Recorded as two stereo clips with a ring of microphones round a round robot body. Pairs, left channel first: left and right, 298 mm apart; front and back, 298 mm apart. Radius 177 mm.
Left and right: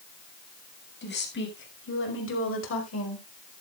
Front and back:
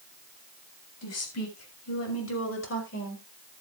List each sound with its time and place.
1.0 s a woman speaking: 35° left, 7 m; by 3.2 s 55° left, 4.5 m